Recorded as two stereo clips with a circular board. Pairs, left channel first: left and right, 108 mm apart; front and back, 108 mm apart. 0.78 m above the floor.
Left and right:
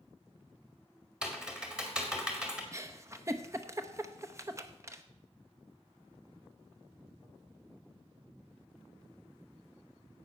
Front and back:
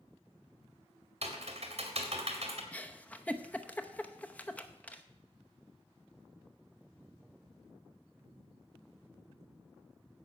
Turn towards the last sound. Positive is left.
turn(degrees=-65)